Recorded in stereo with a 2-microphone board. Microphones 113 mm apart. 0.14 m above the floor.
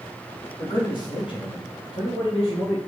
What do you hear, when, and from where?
0.6 s a man speaking: 45° left (ahead or behind), 4.5 m; by 2.8 s 60° left (ahead or behind), 4.5 m